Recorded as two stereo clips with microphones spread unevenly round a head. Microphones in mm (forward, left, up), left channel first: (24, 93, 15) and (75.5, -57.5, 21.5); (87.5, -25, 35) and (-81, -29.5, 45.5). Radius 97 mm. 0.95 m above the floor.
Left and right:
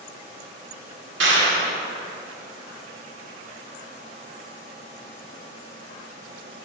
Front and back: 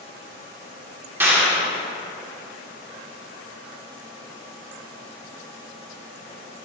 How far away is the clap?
About 1.9 m.